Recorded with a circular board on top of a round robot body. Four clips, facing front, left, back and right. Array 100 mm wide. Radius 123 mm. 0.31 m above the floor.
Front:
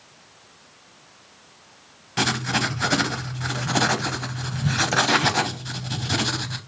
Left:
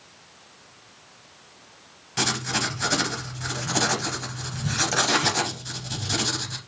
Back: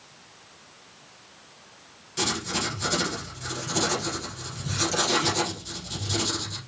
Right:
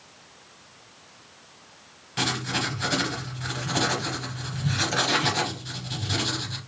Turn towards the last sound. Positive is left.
turn(degrees=10)